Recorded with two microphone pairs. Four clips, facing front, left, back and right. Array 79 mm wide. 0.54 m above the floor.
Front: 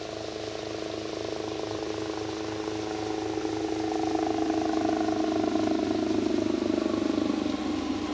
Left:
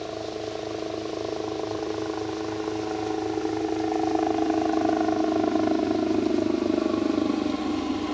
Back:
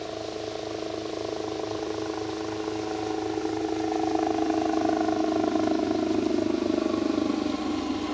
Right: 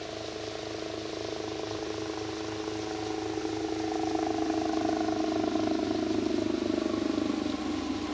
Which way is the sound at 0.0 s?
120° left.